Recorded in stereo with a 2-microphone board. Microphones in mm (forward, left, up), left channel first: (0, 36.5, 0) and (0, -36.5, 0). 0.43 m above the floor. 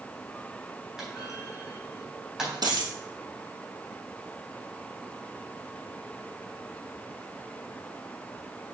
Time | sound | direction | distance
1.0 | a clunk | 5° right (ahead or behind) | 3 m
2.6 | a dropped coin | 60° right (ahead or behind) | 2 m